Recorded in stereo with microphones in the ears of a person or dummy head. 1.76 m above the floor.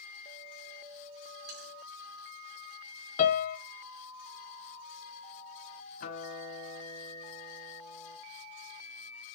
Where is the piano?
45° left (ahead or behind), 0.7 m.